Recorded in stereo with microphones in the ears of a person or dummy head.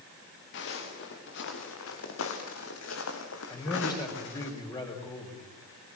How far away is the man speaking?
About 4.5 m.